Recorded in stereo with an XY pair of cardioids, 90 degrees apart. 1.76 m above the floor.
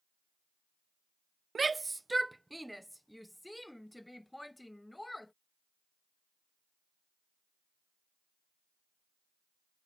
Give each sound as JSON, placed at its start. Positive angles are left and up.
{"t": 1.6, "sound": "a shout", "azimuth_deg": -35}